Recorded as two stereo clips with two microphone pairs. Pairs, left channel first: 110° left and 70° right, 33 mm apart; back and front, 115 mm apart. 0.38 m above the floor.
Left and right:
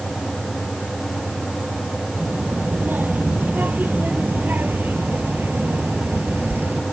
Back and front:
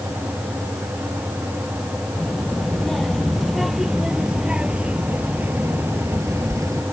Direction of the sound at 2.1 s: 95° right.